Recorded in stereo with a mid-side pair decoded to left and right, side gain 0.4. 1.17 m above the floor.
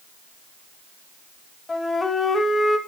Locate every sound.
1.7 s a flute: 25° left, 2 m